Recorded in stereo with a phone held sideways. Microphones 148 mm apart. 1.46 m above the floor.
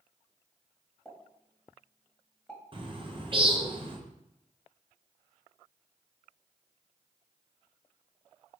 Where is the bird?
40° right (ahead or behind), 0.7 m.